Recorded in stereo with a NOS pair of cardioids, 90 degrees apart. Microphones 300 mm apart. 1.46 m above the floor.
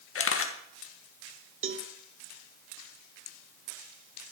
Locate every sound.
0.1 s a camera shutter: 45° left, 1.9 m
1.6 s a cowbell: 45° right, 1.1 m